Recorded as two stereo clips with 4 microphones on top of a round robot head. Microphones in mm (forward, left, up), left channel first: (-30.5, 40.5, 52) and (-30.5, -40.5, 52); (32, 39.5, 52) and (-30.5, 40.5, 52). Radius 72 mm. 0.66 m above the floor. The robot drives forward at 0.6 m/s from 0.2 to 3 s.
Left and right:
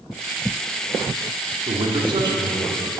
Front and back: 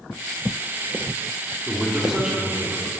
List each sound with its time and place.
1.7 s a man speaking: 95° right, 1.7 m; by 2.9 s 120° right, 1.9 m